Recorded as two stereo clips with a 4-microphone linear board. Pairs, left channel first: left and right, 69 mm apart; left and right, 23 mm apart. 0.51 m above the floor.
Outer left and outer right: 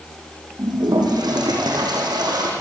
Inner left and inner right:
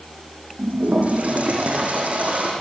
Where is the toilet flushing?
80° right, 5.5 m.